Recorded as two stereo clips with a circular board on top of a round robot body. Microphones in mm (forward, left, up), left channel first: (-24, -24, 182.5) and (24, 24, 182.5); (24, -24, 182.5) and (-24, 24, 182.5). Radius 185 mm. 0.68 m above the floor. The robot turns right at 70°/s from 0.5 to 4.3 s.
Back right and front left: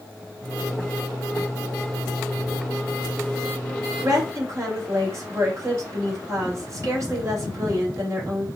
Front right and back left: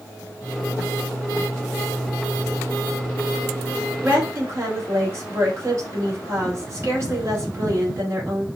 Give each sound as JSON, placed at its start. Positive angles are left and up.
{"t": 4.0, "sound": "a woman speaking", "azimuth_deg": 70, "distance_m": 2.5}